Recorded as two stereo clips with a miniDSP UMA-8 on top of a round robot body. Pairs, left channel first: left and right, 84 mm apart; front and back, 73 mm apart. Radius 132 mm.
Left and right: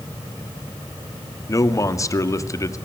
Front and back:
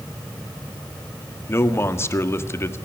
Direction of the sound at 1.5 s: 50° left.